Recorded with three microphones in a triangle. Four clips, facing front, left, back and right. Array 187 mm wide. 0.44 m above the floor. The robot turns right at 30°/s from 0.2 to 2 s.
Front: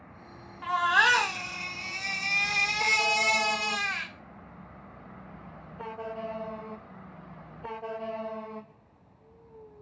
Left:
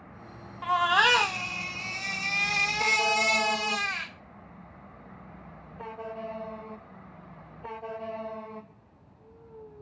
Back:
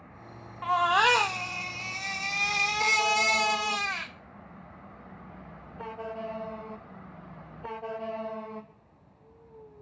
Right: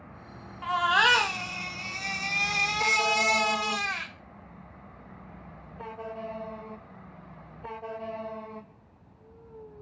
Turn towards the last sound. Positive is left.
turn(degrees=-155)